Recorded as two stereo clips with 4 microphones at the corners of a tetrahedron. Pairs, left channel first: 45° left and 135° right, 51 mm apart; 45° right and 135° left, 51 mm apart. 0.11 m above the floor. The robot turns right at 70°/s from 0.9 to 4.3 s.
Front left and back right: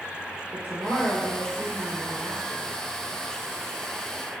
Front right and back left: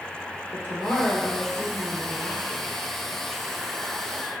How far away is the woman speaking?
About 3 m.